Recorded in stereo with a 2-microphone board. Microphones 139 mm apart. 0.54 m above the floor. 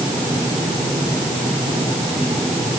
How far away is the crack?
I don't hear a crack.